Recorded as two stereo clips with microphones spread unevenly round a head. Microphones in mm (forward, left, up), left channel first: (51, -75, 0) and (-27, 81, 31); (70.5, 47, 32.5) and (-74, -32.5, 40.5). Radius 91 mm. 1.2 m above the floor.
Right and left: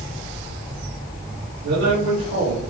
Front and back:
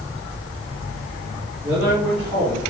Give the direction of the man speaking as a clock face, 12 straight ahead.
8 o'clock.